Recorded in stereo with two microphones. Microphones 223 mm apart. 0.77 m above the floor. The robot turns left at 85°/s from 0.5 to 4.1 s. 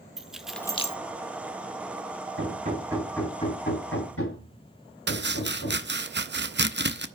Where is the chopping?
50° right (ahead or behind), 0.5 m.